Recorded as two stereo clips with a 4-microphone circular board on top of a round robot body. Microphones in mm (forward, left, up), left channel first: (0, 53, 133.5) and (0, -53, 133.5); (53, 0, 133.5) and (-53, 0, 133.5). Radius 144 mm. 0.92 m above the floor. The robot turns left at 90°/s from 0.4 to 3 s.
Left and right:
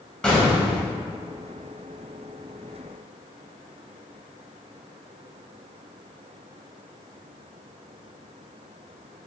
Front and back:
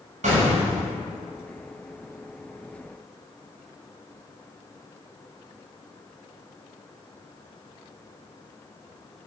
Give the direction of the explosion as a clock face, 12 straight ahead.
6 o'clock.